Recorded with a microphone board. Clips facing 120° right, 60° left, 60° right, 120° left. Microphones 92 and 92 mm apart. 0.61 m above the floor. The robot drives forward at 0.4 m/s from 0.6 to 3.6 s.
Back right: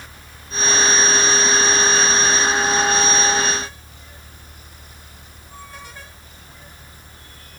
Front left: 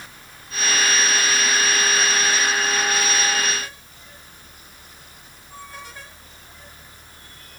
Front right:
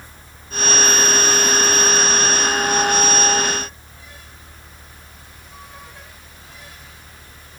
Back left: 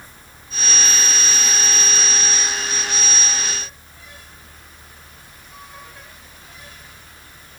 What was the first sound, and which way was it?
Only background noise.